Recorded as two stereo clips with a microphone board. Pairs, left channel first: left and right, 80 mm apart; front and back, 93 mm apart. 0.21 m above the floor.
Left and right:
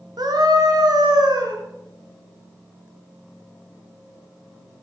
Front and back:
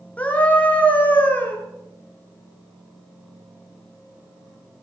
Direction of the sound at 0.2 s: 75° right.